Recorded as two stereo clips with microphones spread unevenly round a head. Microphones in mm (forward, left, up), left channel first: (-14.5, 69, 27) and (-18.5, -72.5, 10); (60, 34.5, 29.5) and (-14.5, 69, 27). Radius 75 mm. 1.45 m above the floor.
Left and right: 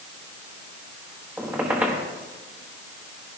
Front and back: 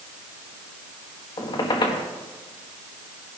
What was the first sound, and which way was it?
A squeak, 5° right.